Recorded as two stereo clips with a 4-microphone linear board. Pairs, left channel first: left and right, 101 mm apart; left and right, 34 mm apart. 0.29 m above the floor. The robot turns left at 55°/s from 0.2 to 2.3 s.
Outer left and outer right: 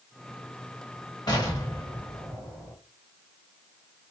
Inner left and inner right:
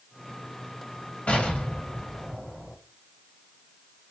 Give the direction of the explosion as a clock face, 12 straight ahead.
9 o'clock.